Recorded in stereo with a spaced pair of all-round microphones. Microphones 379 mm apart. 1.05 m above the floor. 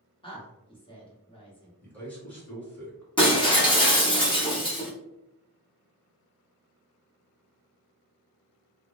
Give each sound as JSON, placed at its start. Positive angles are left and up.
{"t": 0.2, "sound": "a woman speaking", "side_deg": 15, "distance_m": 1.0}
{"t": 1.8, "sound": "a man speaking", "side_deg": 5, "distance_m": 1.0}
{"t": 3.2, "sound": "breaking glass", "side_deg": 15, "distance_m": 0.8}